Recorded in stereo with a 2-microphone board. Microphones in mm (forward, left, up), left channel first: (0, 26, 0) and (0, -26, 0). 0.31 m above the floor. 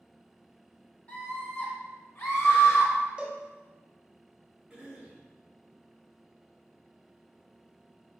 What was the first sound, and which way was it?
A scream, 30° left (ahead or behind).